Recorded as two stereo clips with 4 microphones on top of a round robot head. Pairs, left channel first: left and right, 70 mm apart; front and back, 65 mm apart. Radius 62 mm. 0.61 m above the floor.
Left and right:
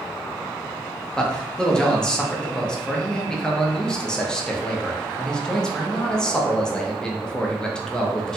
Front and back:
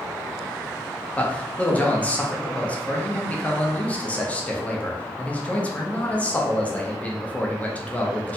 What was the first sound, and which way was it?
A man speaking, 25° left.